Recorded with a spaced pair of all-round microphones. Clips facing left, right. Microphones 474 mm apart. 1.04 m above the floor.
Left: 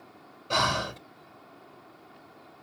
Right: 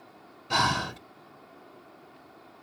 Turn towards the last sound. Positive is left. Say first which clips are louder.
# even
turn(degrees=-10)  # may be behind; listen again after turning